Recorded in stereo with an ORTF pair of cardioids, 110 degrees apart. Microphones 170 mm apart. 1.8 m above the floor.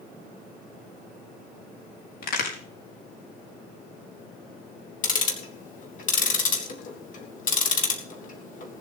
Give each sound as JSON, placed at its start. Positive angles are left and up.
{"t": 2.2, "sound": "a crack", "azimuth_deg": 60, "distance_m": 4.5}
{"t": 5.0, "sound": "ticking", "azimuth_deg": 50, "distance_m": 3.0}